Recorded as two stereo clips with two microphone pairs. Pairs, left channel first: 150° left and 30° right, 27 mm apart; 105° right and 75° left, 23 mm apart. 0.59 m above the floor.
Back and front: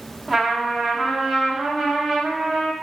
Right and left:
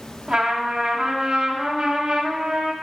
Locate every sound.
0.3 s a trumpet: 60° left, 1.5 m